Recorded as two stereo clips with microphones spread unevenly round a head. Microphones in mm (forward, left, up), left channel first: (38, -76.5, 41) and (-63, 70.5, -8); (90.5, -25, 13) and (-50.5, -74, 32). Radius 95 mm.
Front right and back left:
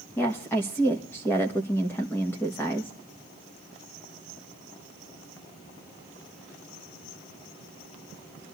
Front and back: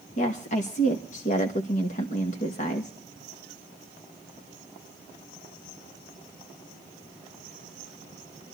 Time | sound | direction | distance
0.2 | a woman speaking | 30° left | 1.3 m